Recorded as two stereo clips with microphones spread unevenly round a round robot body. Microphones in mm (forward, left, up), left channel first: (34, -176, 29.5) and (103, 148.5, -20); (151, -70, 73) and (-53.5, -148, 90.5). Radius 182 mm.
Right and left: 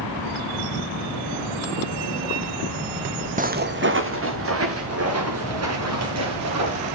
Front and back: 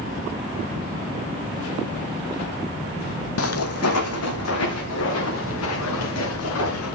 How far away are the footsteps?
About 1.2 m.